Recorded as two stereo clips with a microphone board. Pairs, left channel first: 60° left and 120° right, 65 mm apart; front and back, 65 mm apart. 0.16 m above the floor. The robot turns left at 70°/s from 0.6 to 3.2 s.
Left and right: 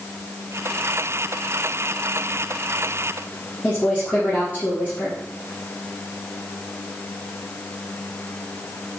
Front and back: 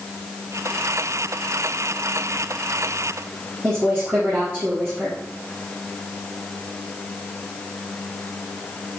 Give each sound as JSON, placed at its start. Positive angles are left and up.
{"t": 3.6, "sound": "a woman speaking", "azimuth_deg": 125, "distance_m": 4.0}